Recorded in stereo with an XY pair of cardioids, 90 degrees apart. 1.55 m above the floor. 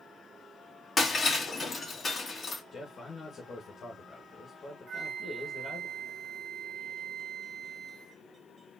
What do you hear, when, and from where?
1.0 s breaking glass: 35° left, 3 m
2.7 s a man speaking: 50° left, 1.7 m
4.9 s a flute: 55° right, 1.4 m